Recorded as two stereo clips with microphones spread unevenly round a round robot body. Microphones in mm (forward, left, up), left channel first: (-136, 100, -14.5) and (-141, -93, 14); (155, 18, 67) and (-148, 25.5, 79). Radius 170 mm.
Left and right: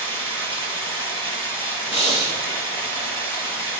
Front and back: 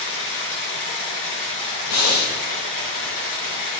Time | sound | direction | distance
0.0 | running water | 25° left | 5.5 m
1.9 | breathing | 25° left | 1.6 m